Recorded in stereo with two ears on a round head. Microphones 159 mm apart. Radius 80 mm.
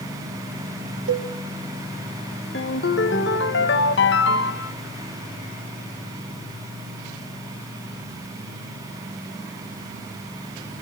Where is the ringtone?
70° left (ahead or behind), 1.2 m.